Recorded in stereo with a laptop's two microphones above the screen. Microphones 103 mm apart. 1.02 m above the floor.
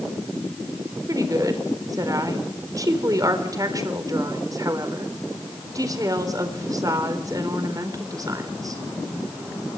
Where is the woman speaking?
35° right (ahead or behind), 4 m.